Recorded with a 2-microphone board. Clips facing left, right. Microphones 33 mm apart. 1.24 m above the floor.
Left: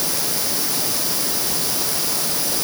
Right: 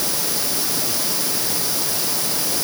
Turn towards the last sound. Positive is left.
No sound to turn to.